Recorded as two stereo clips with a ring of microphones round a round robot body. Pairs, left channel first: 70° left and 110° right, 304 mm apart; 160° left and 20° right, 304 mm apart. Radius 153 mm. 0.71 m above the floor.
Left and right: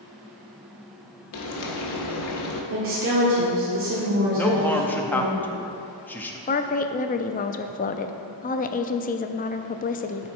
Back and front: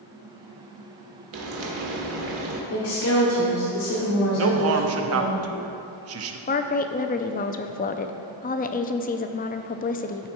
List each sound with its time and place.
1.3 s frying: 25° left, 1.4 m
2.7 s a woman speaking: 160° right, 1.7 m
4.3 s a man speaking: 15° right, 0.8 m
6.5 s a woman speaking: 115° left, 0.5 m